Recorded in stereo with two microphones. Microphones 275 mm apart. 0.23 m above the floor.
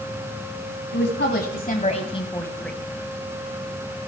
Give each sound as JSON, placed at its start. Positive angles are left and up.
{"t": 0.9, "sound": "a woman speaking", "side_deg": 45, "distance_m": 1.9}